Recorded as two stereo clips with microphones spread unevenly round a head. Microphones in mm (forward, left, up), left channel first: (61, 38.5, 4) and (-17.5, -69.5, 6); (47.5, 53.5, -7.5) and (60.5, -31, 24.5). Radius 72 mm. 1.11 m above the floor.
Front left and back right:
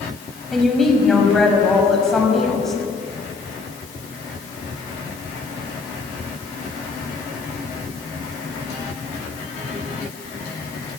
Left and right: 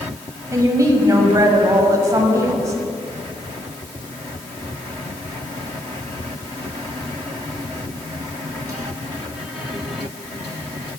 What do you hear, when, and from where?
0.5 s a woman speaking: 35° right, 6 m